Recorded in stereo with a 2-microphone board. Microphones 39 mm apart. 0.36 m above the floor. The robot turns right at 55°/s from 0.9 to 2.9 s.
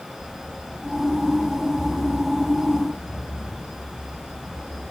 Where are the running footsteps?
60° left (ahead or behind), 1.9 m; by 4.8 s 75° left (ahead or behind), 6 m.